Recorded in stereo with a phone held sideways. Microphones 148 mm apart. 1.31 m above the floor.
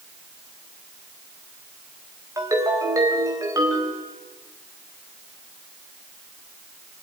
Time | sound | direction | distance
2.4 | a ringtone | 20° right (ahead or behind) | 3.5 m